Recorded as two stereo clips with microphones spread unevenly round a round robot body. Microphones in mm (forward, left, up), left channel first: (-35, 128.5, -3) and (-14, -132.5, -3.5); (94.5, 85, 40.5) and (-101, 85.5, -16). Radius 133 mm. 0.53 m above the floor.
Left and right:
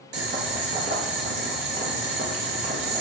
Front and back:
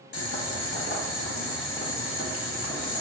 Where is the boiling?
30° right, 0.8 m.